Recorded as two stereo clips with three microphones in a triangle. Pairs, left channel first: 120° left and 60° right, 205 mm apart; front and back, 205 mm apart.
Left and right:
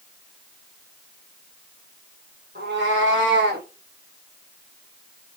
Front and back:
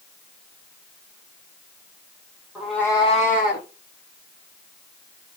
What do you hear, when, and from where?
2.5 s a cat meowing: 95° right, 1.0 m; by 3.7 s 25° right, 1.1 m